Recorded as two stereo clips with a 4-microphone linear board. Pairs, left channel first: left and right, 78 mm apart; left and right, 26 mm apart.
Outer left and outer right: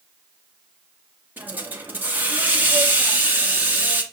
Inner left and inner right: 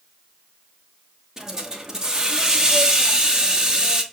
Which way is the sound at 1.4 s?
25° right (ahead or behind).